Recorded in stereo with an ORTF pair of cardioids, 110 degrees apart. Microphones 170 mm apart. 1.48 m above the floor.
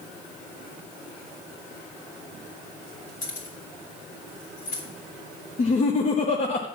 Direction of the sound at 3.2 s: 60° left.